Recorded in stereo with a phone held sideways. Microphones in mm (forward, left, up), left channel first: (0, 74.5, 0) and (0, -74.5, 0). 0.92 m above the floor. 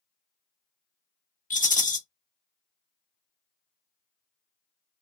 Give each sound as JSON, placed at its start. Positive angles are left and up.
{"t": 1.5, "sound": "a rattle", "side_deg": 60, "distance_m": 0.6}